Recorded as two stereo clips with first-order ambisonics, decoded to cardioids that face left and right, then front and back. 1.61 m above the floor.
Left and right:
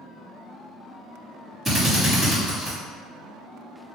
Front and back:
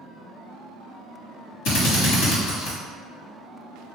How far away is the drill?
About 1.9 m.